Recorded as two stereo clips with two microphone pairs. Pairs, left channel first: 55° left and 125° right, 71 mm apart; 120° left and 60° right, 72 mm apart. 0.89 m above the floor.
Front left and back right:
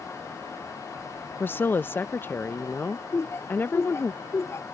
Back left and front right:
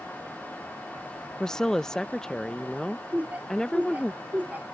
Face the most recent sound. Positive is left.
turn(degrees=5)